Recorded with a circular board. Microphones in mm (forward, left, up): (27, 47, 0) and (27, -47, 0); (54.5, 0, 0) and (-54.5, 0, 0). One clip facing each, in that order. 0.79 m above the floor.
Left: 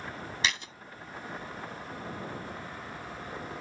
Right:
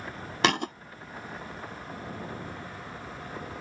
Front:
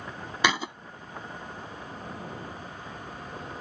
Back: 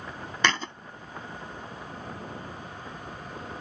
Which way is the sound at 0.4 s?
80° right.